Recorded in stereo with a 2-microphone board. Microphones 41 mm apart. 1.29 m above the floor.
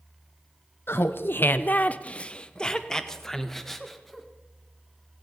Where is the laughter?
60° left (ahead or behind), 0.5 m; by 4.3 s 5° left (ahead or behind), 1.6 m.